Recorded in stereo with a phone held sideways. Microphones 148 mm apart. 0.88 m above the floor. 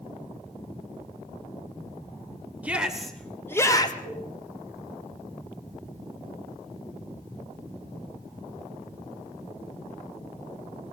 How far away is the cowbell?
About 8.5 m.